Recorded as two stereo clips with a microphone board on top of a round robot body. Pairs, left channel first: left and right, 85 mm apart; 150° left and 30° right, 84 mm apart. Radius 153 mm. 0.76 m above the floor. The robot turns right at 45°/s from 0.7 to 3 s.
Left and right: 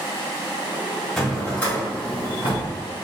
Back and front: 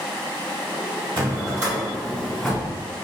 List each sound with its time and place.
1.2 s a drawer: straight ahead, 1.7 m; by 2.7 s 70° left, 1.7 m